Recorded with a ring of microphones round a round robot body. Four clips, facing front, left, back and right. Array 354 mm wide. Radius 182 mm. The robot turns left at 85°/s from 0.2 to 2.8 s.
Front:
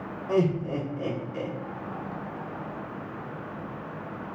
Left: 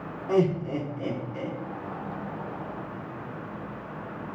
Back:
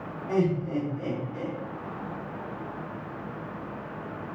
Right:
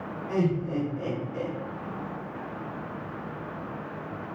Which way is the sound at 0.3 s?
95° left.